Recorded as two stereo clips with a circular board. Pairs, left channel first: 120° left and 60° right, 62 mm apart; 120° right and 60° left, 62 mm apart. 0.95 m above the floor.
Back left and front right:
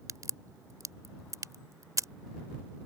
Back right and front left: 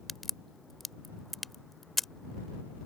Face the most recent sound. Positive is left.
turn(degrees=-30)